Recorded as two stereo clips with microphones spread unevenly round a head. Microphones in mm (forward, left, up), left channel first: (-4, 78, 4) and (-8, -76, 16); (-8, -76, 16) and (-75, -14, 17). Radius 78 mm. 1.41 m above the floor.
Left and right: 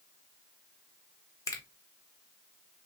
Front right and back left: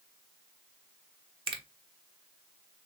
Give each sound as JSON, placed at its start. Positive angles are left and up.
{"t": 1.5, "sound": "a finger snap", "azimuth_deg": 160, "distance_m": 0.9}